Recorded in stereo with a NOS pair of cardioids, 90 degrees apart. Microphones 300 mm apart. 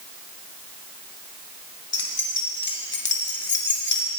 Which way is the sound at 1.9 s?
40° left.